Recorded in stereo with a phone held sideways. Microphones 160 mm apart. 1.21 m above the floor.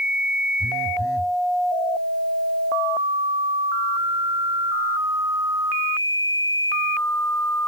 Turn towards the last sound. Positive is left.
turn(degrees=-85)